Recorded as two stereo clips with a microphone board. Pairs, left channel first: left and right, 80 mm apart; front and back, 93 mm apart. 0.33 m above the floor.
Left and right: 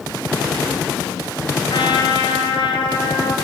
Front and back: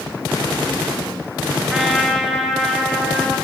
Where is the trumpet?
100° left, 3.5 m.